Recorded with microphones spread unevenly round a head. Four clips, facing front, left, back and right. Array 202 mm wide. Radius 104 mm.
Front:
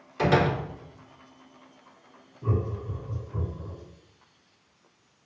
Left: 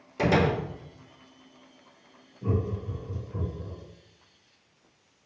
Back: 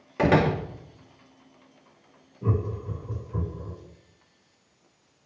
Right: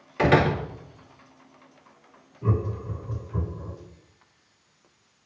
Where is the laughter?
175° left, 7.5 m.